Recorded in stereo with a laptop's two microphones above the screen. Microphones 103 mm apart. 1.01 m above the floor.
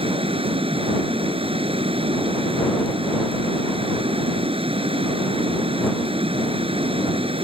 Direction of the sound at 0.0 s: 65° right (ahead or behind).